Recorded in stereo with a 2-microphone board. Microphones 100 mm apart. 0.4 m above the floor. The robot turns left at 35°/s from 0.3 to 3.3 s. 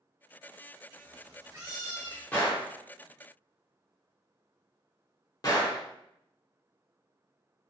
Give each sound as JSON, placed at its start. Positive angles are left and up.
{"t": 0.9, "sound": "a cat meowing", "azimuth_deg": -125, "distance_m": 0.9}
{"t": 2.3, "sound": "a gunshot", "side_deg": 15, "distance_m": 0.9}